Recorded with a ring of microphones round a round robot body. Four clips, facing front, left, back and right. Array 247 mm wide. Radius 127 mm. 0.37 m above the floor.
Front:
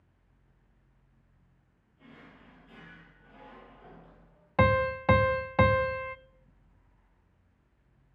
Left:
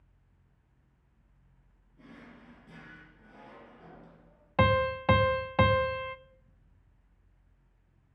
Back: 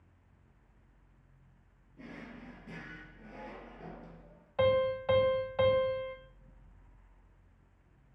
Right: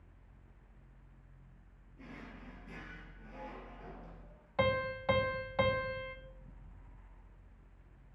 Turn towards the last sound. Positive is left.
turn(degrees=40)